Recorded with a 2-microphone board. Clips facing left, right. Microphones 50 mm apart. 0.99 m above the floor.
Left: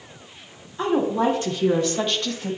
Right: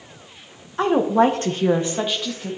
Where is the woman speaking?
70° right (ahead or behind), 1.2 m; by 2.6 s 10° left (ahead or behind), 1.2 m.